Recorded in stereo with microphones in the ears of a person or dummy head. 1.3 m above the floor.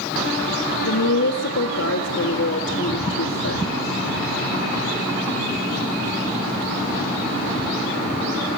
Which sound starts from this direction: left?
A woman speaking, at 0.8 s.